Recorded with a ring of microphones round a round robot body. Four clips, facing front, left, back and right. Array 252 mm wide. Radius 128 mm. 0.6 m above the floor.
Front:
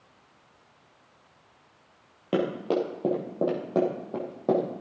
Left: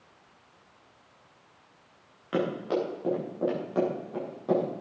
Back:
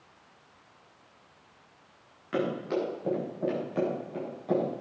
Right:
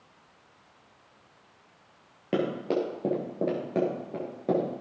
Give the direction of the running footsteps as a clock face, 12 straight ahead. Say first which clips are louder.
Right 1 dB, front 4 dB; 1 o'clock.